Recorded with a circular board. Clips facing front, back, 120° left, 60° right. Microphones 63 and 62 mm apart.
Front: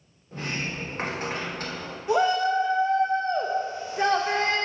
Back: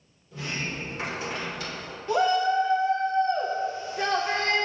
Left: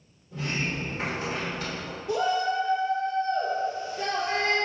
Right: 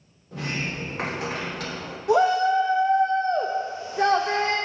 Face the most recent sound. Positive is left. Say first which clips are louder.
# front 1 dB, right 7 dB
turn(degrees=-75)